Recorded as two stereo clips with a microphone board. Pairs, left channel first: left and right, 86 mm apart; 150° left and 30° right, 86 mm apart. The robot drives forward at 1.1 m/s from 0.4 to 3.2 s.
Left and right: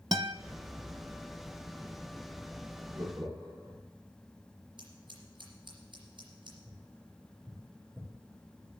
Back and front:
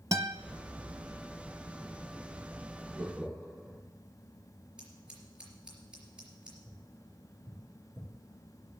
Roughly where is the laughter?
Behind right.